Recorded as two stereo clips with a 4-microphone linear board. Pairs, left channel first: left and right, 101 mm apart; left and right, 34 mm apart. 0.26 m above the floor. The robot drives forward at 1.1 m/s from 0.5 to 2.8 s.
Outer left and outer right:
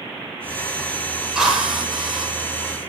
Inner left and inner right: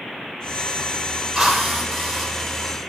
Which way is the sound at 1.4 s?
5° right (ahead or behind).